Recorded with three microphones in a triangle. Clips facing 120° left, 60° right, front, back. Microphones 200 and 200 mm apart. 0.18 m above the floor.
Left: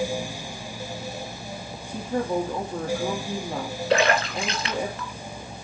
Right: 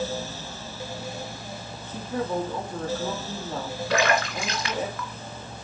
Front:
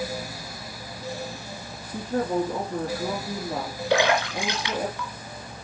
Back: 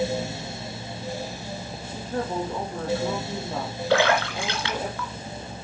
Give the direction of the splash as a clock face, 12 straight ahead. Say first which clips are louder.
Left 3 dB, back 1 dB; 10 o'clock.